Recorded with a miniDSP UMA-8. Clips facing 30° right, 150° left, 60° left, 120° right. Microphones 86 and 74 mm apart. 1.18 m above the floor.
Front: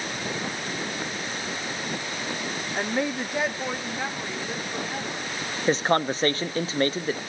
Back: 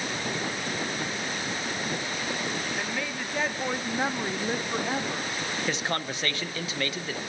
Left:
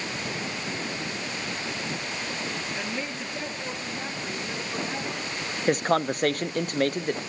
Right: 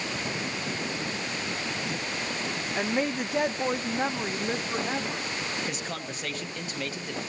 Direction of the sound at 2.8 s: 80° right.